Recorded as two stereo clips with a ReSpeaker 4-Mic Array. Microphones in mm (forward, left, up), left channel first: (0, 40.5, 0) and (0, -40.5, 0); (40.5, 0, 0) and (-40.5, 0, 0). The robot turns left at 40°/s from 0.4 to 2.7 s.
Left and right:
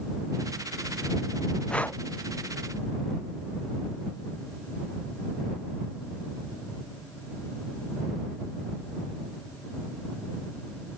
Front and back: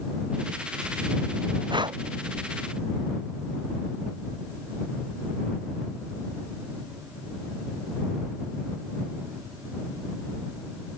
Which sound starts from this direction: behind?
Breathing, at 1.7 s.